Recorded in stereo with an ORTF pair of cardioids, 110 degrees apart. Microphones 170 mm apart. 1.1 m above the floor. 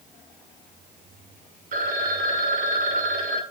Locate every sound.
1.7 s a phone ringing: 50° right, 1.5 m